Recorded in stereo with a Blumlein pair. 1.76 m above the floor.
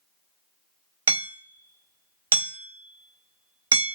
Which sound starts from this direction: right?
Hammering, at 1.1 s.